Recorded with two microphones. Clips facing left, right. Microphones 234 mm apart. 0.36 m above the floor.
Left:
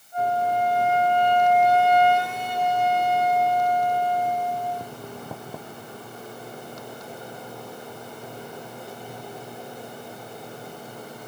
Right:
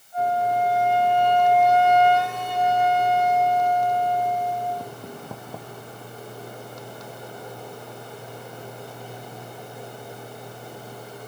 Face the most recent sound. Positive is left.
turn(degrees=55)  # may be behind; listen again after turning